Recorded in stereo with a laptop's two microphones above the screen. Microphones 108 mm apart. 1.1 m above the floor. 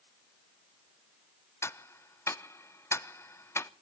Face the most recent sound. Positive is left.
turn(degrees=25)  # may be behind; listen again after turning